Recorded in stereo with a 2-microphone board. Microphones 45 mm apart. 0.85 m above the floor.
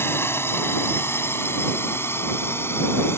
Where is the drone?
70° left (ahead or behind).